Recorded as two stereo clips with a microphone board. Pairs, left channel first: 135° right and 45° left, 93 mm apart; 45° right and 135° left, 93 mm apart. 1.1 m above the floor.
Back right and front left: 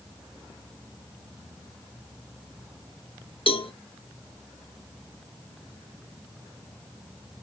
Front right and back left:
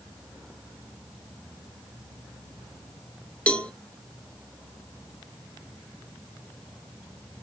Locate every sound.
3.5 s a cowbell: 120° right, 0.7 m